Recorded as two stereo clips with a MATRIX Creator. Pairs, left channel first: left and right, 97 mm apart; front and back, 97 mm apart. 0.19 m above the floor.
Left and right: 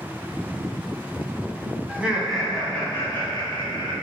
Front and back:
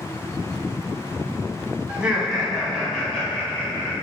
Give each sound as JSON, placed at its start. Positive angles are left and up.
{"t": 1.9, "sound": "laughter", "azimuth_deg": -125, "distance_m": 1.4}